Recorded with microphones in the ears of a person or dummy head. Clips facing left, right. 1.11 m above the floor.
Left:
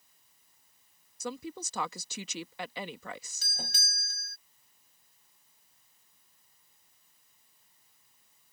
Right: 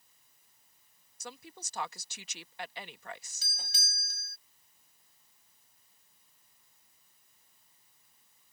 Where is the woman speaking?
70° left (ahead or behind).